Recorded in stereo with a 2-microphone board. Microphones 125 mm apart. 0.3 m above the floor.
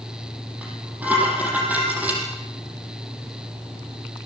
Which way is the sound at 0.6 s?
15° right (ahead or behind).